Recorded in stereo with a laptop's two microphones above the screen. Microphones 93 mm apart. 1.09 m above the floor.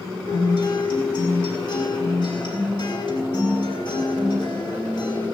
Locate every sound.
0.3 s a guitar: 55° left (ahead or behind), 5.5 m